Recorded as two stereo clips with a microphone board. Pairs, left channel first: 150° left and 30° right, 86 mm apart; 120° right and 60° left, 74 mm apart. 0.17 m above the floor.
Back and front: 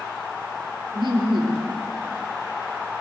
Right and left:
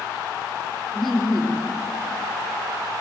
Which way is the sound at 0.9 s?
35° right.